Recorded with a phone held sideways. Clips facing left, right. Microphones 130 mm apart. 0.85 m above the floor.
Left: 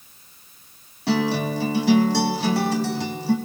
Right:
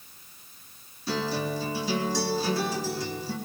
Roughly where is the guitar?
Left.